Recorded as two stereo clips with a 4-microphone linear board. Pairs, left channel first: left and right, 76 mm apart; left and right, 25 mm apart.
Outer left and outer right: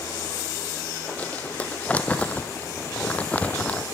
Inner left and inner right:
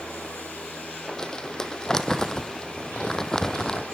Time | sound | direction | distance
1.2 | crumpling | 20° left (ahead or behind) | 1.5 m